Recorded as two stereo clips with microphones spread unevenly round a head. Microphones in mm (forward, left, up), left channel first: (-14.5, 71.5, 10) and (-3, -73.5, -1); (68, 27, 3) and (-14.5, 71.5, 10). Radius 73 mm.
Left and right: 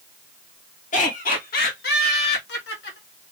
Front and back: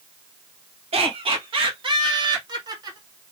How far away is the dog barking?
No dog barking in this recording.